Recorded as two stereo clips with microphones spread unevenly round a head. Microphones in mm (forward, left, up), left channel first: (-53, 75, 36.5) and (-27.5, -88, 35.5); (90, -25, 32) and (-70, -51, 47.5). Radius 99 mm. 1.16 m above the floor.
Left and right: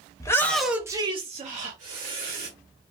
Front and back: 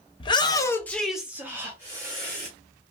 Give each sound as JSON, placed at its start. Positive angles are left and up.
{"t": 0.2, "sound": "a shout", "azimuth_deg": 40, "distance_m": 0.7}